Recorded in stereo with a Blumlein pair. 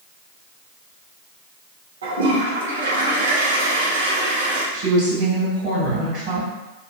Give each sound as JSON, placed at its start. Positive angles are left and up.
{"t": 2.0, "sound": "a toilet flushing", "azimuth_deg": -65, "distance_m": 0.9}
{"t": 4.7, "sound": "a woman speaking", "azimuth_deg": -45, "distance_m": 1.8}